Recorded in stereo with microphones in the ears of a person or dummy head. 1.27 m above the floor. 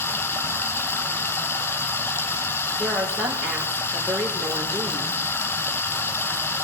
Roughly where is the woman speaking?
Centre.